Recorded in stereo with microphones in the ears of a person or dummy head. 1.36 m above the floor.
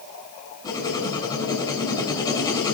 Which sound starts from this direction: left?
Writing, at 0.6 s.